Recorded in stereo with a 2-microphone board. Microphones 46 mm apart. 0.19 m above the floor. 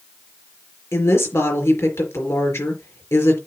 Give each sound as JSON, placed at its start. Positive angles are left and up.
{"t": 0.9, "sound": "a woman speaking", "side_deg": 65, "distance_m": 4.0}